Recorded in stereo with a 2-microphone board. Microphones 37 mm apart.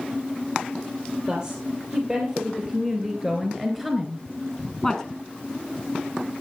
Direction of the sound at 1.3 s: 25° right (ahead or behind).